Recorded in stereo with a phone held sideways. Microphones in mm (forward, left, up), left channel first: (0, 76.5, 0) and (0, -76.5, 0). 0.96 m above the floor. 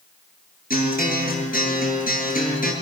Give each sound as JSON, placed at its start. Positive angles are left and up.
{"t": 0.7, "sound": "a guitar", "side_deg": 75, "distance_m": 8.0}